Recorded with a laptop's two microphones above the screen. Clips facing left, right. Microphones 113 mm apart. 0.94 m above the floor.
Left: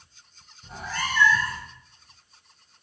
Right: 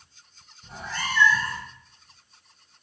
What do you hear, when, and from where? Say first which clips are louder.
0.6 s a cat meowing: left 1 dB; 5° left (ahead or behind), 1.1 m